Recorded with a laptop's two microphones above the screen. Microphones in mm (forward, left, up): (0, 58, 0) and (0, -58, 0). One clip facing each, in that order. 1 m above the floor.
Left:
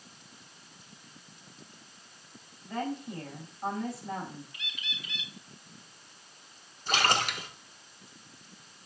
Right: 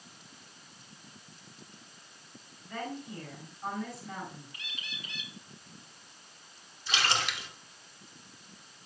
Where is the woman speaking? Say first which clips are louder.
Left 4 dB; 30° left (ahead or behind), 4.5 m.